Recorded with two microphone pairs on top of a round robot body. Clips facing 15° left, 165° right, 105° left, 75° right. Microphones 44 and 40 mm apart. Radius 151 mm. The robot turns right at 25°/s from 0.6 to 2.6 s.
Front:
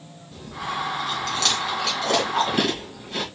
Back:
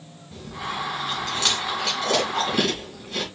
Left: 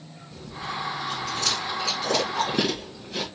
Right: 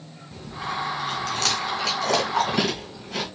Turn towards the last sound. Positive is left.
turn(degrees=-55)